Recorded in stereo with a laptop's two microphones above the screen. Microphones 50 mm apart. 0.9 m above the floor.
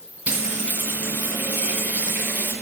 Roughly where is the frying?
Right.